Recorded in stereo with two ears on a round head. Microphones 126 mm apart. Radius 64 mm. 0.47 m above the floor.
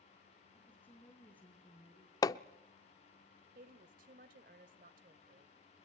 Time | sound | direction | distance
0.6 | a woman speaking | 15° left (ahead or behind) | 7.5 m
2.2 | hammering | 25° left (ahead or behind) | 0.6 m
3.5 | a woman speaking | 65° right (ahead or behind) | 1.8 m